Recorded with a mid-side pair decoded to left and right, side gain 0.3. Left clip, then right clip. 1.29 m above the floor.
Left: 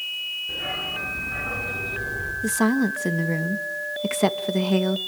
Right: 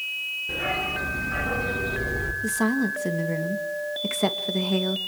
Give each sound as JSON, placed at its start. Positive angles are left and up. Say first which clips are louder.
{"t": 0.5, "sound": "a dog barking", "louder": "right 1 dB", "azimuth_deg": -60, "distance_m": 7.5}
{"t": 2.4, "sound": "a woman speaking", "louder": "left 4 dB", "azimuth_deg": 35, "distance_m": 2.0}